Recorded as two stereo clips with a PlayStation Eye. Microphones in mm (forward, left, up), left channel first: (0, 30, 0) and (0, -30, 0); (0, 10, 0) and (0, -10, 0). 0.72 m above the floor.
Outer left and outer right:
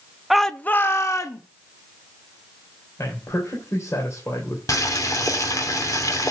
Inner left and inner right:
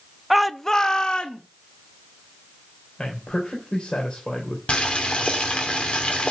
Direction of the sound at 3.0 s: 55° left (ahead or behind).